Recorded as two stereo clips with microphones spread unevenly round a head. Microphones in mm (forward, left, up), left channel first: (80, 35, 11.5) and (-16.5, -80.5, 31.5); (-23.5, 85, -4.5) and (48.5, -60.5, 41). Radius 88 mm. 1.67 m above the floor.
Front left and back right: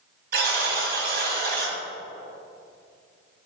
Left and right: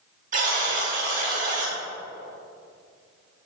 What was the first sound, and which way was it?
A buzzer, 110° right.